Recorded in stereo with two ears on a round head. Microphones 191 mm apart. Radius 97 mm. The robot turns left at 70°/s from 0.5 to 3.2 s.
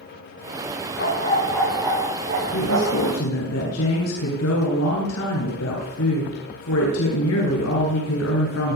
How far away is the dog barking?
About 9 m.